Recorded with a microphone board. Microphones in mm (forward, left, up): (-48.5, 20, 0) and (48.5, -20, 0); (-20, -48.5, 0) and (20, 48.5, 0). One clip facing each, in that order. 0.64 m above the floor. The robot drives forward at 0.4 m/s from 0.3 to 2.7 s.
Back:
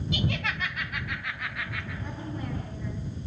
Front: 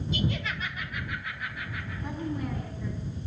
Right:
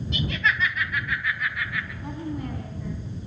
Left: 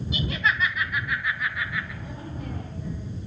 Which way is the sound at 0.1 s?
150° left.